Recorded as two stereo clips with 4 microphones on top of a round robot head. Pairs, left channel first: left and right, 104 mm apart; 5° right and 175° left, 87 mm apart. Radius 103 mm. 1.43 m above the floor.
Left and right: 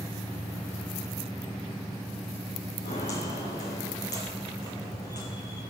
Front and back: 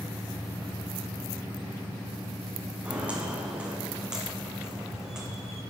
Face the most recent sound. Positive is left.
turn(degrees=90)